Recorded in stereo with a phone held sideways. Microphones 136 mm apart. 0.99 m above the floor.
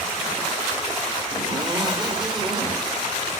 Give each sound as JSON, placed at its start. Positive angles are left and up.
{"t": 1.3, "sound": "a zipper", "side_deg": -30, "distance_m": 1.9}